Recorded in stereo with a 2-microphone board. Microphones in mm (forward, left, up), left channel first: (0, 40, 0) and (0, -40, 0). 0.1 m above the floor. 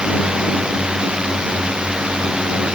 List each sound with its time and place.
0.0 s a drone: 10° right (ahead or behind)